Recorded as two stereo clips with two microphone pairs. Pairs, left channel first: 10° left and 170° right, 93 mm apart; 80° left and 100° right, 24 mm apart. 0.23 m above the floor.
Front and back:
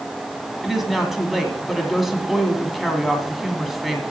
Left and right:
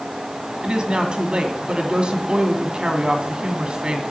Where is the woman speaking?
80° right, 1.8 m.